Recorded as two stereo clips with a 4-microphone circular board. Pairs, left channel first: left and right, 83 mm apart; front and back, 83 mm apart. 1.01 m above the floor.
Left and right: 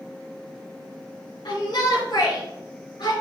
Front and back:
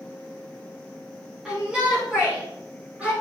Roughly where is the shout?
Left.